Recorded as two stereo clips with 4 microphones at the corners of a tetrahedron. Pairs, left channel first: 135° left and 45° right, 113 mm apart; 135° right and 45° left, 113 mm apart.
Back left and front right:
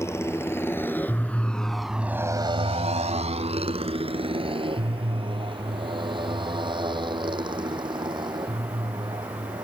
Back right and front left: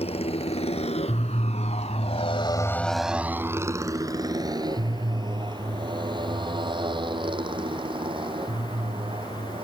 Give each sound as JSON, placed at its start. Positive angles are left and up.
{"t": 0.0, "sound": "a motorcycle", "azimuth_deg": -160}